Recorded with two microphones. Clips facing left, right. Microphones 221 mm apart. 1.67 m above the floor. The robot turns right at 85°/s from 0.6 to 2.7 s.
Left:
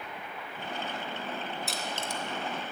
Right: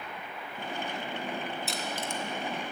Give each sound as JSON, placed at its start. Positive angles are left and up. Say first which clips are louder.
{"t": 1.7, "sound": "crushing", "louder": "right 1 dB", "side_deg": 0, "distance_m": 1.0}